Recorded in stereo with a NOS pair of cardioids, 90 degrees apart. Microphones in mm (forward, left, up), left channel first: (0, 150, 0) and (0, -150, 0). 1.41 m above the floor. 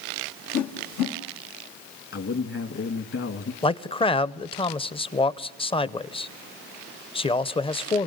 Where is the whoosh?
65° left, 1.2 m.